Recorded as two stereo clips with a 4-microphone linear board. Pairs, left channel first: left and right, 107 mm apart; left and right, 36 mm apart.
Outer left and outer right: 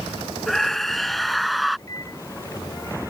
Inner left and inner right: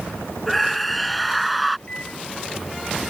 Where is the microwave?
30° left (ahead or behind).